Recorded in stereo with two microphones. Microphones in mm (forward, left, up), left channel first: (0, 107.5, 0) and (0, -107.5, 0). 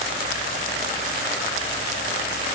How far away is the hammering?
No hammering in this recording.